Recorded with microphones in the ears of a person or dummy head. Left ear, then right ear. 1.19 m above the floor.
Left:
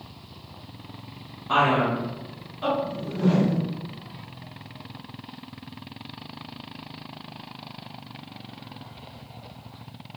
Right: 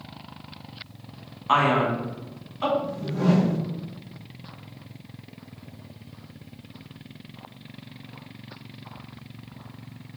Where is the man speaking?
55° right (ahead or behind), 1.5 m.